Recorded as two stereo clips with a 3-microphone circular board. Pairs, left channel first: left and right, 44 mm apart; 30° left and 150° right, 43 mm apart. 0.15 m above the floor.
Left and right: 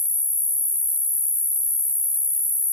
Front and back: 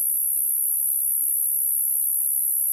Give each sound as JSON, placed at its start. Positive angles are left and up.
{"t": 0.0, "sound": "an insect", "azimuth_deg": 75, "distance_m": 0.8}